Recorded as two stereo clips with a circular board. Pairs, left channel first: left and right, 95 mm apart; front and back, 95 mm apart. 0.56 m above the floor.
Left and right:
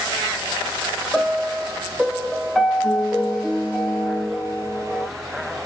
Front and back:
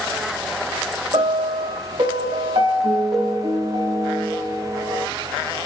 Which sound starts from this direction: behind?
A piano, at 1.1 s.